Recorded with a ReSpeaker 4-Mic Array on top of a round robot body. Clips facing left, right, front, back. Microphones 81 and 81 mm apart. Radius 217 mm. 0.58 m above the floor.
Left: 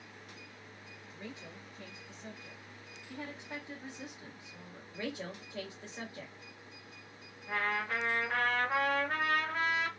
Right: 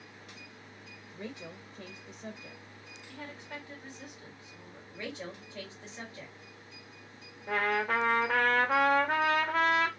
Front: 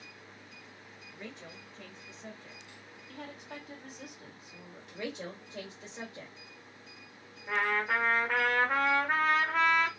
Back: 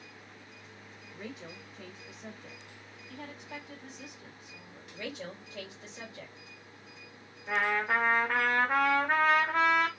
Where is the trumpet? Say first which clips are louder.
Right 5 dB, back 1 dB; 90° right, 0.7 m.